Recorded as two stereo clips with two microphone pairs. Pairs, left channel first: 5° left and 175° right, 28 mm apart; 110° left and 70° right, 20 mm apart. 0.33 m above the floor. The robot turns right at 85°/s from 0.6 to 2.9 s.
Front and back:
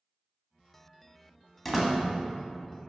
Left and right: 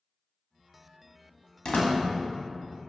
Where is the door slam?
90° left, 1.5 m; by 2.0 s 115° left, 1.5 m.